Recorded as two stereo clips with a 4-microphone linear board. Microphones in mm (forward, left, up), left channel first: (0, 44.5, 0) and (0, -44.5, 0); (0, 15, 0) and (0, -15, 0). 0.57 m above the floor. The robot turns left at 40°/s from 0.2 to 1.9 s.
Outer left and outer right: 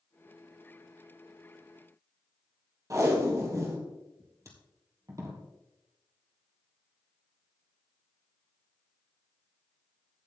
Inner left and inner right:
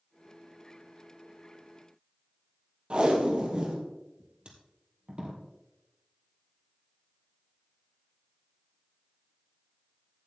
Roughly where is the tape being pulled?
Right.